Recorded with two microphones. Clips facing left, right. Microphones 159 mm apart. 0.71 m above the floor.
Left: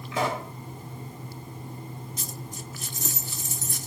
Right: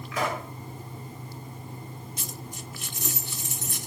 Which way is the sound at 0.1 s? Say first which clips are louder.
Left 2 dB; 25° left (ahead or behind).